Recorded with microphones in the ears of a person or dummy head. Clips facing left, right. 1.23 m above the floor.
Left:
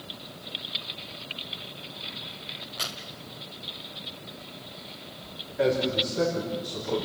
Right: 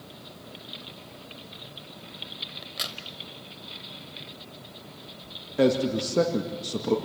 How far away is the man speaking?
About 2 m.